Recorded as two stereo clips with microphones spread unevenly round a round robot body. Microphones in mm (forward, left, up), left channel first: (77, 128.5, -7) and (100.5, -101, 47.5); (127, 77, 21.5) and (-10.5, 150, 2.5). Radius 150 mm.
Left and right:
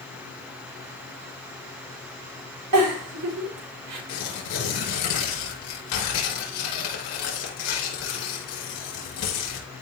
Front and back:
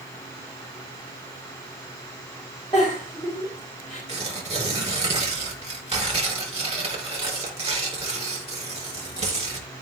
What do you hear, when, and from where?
2.7 s a giggle: 105° right, 3.5 m
4.1 s tearing paper: 105° left, 5.5 m